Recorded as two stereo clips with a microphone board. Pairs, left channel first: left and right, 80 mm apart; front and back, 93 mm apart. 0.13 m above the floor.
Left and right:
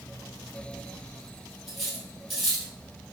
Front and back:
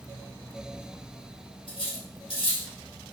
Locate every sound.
1.7 s cutlery clinking: straight ahead, 1.9 m